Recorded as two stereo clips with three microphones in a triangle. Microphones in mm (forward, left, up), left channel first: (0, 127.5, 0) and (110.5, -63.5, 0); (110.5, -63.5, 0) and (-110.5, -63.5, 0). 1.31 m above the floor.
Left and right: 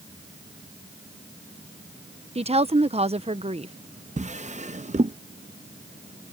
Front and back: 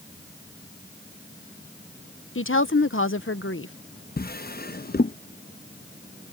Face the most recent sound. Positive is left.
turn(degrees=-15)